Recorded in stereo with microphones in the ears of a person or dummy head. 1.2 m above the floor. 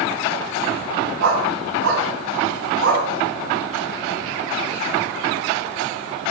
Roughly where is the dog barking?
Right.